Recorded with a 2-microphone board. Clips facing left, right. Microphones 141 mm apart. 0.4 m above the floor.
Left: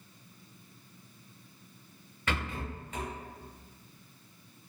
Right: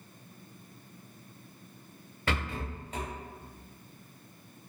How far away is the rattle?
About 1.0 m.